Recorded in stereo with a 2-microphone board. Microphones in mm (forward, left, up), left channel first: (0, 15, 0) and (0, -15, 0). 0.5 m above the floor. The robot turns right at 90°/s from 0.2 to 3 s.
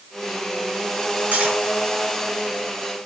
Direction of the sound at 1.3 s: 55° right (ahead or behind).